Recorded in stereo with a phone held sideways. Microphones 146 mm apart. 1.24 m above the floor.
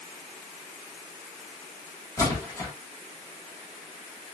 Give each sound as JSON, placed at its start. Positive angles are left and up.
{"t": 2.2, "sound": "a splash", "side_deg": 20, "distance_m": 2.5}